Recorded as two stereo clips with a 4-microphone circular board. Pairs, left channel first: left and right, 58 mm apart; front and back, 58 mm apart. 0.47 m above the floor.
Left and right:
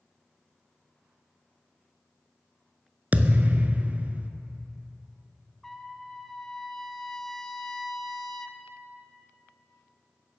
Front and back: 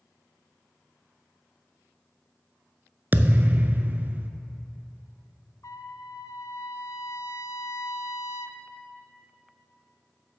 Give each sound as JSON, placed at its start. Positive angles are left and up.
{"t": 3.1, "sound": "a thud", "azimuth_deg": -140, "distance_m": 0.5}
{"t": 5.6, "sound": "a trumpet", "azimuth_deg": 5, "distance_m": 0.6}